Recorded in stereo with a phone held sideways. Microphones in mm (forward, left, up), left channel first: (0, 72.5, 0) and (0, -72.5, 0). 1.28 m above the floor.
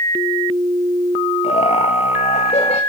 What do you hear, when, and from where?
1.4 s laughter: 50° left (ahead or behind), 1.7 m